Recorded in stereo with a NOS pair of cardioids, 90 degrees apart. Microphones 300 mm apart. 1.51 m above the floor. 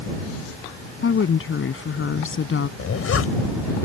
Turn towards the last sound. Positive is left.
turn(degrees=45)